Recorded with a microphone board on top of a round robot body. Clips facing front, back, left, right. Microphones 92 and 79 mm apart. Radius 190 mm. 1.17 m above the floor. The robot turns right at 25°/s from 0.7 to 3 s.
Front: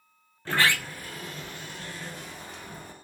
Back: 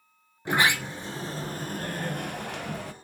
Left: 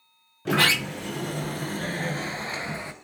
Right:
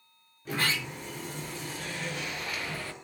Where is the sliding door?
105° left, 1.0 m; by 2.9 s 165° left, 1.0 m.